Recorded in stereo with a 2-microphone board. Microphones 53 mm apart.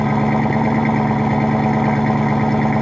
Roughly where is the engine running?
Centre.